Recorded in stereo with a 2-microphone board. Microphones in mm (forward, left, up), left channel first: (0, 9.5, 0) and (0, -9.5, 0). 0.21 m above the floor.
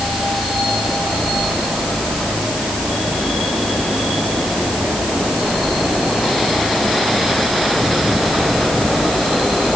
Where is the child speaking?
No child speaking in this recording.